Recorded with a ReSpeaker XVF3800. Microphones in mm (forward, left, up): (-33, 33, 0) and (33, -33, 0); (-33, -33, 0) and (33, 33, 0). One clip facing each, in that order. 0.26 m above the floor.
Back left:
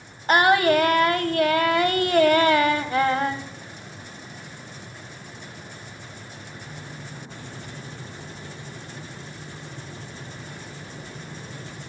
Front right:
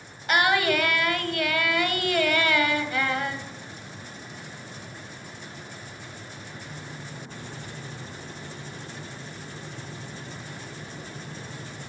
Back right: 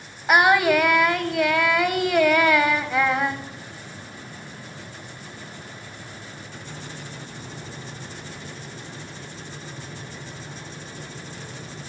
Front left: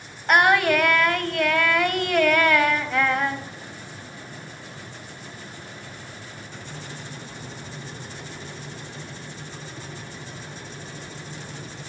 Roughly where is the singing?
Behind left.